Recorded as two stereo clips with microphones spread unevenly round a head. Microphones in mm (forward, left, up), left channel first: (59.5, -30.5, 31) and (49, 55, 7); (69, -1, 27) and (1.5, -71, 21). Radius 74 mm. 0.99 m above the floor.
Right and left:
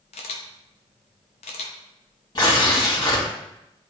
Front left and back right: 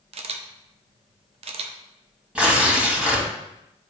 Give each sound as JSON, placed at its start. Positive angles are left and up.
{"t": 0.1, "sound": "a camera shutter", "azimuth_deg": -120, "distance_m": 0.7}
{"t": 2.4, "sound": "tearing paper", "azimuth_deg": -55, "distance_m": 2.5}